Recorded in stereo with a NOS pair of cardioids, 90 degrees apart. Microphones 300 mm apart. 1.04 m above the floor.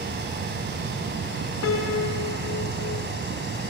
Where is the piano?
50° left, 4.5 m.